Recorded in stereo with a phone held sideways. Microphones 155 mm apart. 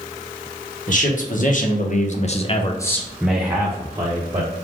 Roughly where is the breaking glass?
I don't hear breaking glass.